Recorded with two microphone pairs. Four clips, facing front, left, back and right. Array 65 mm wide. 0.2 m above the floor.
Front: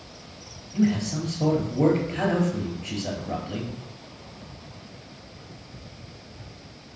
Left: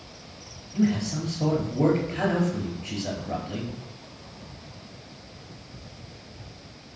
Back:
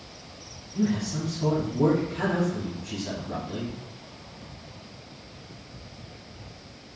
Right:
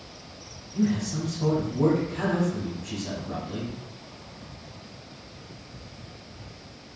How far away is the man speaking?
About 4 m.